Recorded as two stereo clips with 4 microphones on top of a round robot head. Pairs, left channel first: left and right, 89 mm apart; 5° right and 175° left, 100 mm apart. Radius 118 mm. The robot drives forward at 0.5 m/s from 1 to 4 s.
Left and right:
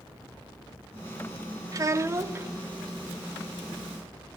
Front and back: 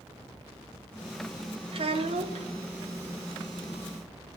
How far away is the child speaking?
About 0.7 m.